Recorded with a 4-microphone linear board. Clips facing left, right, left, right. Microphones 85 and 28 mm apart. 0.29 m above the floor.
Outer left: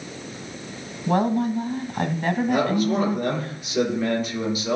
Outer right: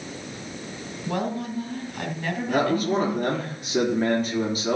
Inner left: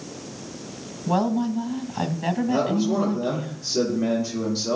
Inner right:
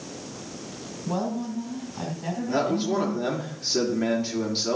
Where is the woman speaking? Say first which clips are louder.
Outer left 7 dB, inner left 6 dB; 45° left (ahead or behind), 1.7 m.